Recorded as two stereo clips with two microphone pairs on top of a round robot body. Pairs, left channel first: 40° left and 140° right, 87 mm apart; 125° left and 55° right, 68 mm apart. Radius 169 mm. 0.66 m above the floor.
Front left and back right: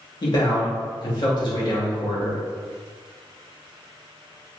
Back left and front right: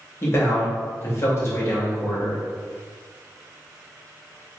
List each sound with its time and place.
0.2 s a man speaking: 80° left, 1.4 m